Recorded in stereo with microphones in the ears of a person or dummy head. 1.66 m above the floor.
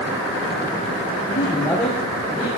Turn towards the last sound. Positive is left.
turn(degrees=-10)  # may be behind; listen again after turning